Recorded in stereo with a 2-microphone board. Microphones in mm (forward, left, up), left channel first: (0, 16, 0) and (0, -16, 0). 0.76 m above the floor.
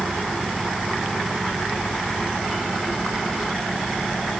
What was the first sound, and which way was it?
Only background noise.